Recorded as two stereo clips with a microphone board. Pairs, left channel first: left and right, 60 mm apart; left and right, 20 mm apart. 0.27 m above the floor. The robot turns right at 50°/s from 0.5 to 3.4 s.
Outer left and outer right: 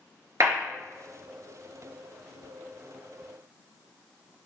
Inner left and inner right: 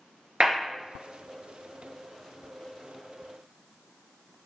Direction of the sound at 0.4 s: 65° right (ahead or behind).